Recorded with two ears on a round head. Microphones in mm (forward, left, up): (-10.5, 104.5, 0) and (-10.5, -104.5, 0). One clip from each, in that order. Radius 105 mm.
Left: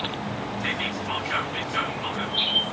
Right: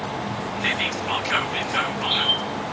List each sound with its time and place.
0.6 s whispering: 30° right (ahead or behind), 1.3 m